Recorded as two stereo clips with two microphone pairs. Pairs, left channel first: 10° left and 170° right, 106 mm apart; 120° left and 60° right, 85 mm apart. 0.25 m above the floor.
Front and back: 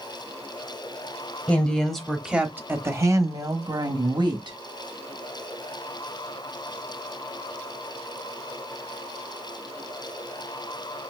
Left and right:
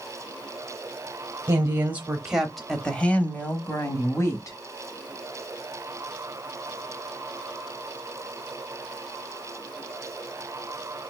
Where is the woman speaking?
55° right, 1.1 m; by 4.6 s 160° left, 1.7 m.